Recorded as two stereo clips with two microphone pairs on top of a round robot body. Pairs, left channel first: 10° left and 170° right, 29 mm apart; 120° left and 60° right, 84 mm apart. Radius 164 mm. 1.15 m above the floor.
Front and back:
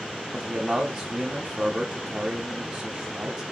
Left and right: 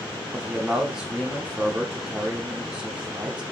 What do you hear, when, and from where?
0.3 s a man speaking: 135° right, 0.7 m